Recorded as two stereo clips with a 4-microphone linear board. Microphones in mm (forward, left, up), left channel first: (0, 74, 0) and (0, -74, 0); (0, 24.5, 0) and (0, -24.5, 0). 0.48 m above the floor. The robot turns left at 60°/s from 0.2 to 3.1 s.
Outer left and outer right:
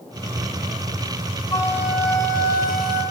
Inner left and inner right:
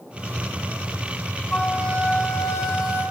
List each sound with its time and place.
1.5 s a flute: 165° left, 3.5 m; by 3.0 s 75° left, 3.5 m